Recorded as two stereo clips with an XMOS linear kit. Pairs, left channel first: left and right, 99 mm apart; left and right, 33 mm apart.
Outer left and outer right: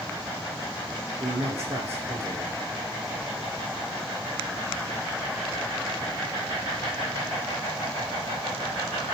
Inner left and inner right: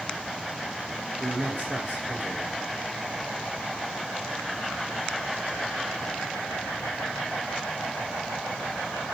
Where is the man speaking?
80° right, 2 m.